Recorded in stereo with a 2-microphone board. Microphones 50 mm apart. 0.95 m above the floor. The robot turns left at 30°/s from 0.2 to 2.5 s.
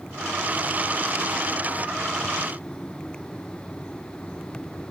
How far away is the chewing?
No chewing in this recording.